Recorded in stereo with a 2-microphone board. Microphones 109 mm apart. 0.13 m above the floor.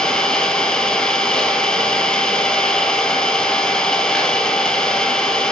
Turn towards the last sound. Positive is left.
turn(degrees=10)  # may be behind; listen again after turning